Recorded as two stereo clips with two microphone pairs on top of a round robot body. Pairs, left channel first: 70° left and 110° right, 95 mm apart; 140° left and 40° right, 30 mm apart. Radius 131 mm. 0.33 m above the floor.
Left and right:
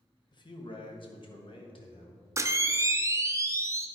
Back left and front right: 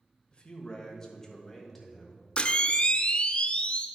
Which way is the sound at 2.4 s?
170° right.